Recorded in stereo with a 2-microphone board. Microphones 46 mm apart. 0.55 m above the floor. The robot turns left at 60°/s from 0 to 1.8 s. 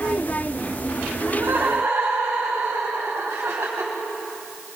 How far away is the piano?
I don't hear a piano.